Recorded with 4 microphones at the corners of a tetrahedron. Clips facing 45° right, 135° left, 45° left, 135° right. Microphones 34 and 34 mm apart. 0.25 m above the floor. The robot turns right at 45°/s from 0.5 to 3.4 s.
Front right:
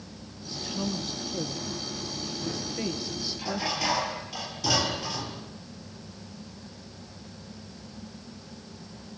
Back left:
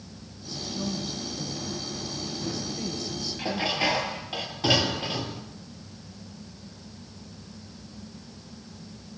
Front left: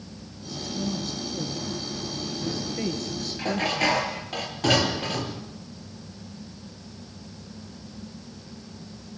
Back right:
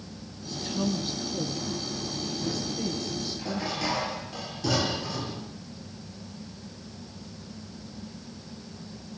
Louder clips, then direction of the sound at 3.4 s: Back left 4 dB, front left 9 dB; 80° left.